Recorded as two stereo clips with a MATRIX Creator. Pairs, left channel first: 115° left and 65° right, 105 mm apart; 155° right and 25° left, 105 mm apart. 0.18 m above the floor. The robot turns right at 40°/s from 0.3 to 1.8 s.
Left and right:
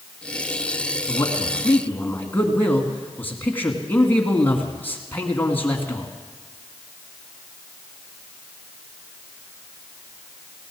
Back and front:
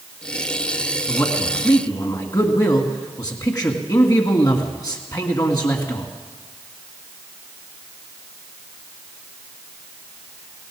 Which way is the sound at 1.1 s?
145° left.